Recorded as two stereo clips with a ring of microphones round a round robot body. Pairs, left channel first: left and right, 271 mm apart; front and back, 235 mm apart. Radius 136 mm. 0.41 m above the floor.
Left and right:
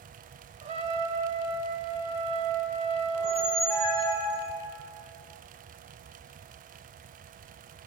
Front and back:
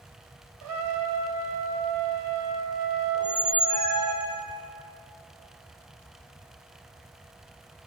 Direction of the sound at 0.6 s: 160° right.